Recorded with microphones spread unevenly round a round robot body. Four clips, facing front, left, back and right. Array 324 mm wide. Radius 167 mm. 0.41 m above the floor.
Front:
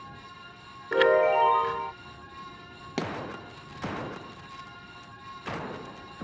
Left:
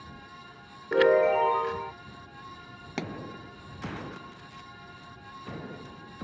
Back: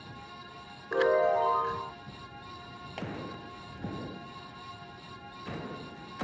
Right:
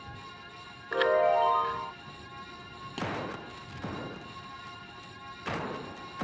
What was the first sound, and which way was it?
A chime, 70° left.